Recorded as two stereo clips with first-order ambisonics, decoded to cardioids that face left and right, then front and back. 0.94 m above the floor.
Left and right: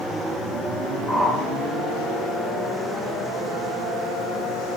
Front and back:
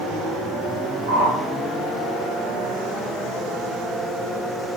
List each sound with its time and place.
1.1 s a whoosh: 175° left, 3 m